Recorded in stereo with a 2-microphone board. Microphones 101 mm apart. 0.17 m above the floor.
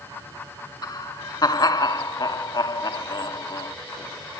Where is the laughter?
40° left (ahead or behind), 1.6 m.